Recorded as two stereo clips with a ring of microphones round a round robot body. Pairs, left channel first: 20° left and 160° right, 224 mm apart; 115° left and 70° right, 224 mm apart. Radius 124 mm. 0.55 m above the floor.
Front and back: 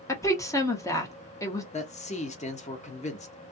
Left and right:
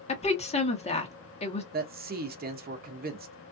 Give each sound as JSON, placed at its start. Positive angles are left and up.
{"t": 0.1, "sound": "a woman speaking", "azimuth_deg": 85, "distance_m": 1.1}
{"t": 1.7, "sound": "a man speaking", "azimuth_deg": -30, "distance_m": 1.0}